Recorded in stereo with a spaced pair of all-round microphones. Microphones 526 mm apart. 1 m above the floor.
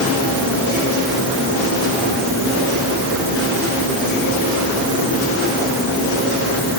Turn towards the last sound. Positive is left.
No sound to turn to.